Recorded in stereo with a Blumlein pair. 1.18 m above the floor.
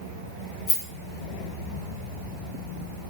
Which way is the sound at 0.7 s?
40° left.